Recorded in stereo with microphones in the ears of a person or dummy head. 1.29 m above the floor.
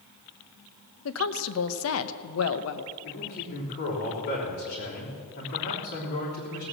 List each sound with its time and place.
1.1 s a woman speaking: 80° left, 1.0 m
3.0 s a man speaking: 60° left (ahead or behind), 3.5 m